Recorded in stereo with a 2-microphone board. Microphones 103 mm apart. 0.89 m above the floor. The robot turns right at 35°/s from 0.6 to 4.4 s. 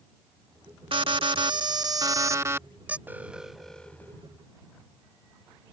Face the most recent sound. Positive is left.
turn(degrees=30)